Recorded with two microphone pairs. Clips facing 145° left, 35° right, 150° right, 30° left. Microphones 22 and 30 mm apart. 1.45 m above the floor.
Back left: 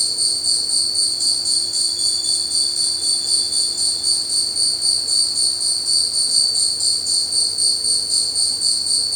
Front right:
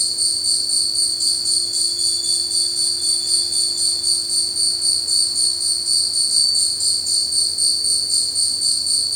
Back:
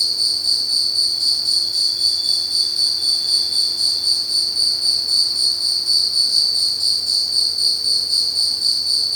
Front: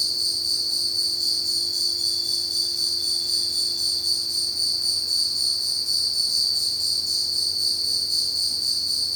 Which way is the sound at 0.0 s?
125° right.